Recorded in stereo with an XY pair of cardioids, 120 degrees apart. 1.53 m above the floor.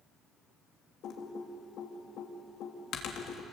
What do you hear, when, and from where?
1.0 s typing on a keyboard: 65° left, 3.5 m